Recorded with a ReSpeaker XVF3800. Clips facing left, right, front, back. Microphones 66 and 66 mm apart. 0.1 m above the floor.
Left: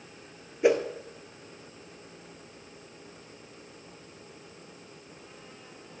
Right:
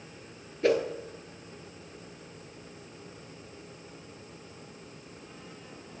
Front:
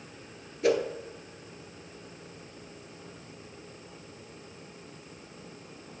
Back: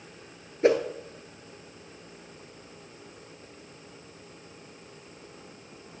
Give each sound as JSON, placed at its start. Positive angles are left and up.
{"t": 0.6, "sound": "a whoosh", "azimuth_deg": 150, "distance_m": 0.9}